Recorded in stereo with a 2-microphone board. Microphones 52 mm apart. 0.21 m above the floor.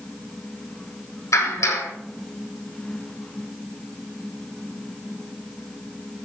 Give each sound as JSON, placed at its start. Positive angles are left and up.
{"t": 1.3, "sound": "a clap", "side_deg": 75, "distance_m": 8.0}